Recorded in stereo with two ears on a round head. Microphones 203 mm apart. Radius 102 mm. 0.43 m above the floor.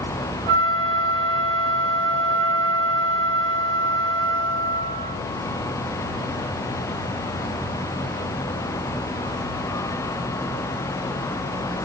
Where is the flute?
40° right (ahead or behind), 5 m.